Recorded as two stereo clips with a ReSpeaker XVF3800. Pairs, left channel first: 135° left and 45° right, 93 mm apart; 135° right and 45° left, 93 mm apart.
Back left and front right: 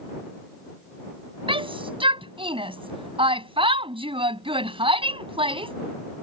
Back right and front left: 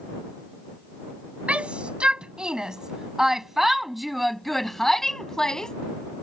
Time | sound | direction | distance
1.5 | a shout | 30° right | ?